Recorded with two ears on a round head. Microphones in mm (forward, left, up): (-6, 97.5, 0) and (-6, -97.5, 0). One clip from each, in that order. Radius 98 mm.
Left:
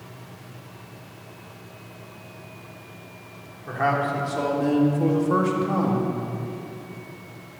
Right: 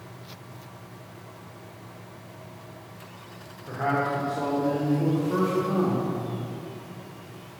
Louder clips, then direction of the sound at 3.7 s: Left 3 dB; 75° left (ahead or behind).